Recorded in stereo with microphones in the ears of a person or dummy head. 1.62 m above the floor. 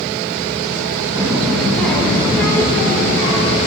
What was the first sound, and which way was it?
A child speaking, 20° right (ahead or behind).